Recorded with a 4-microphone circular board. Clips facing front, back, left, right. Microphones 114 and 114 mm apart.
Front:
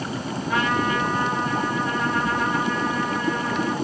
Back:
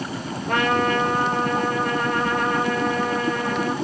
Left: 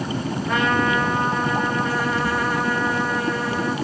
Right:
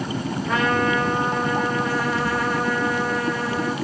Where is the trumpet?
Straight behind, 3 m.